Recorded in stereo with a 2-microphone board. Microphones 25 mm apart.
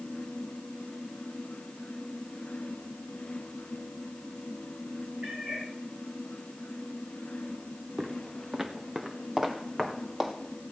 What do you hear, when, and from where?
5.2 s a cat meowing: 45° right (ahead or behind), 6 m
8.0 s footsteps: 15° right (ahead or behind), 1.0 m; by 10.3 s 10° right (ahead or behind), 3 m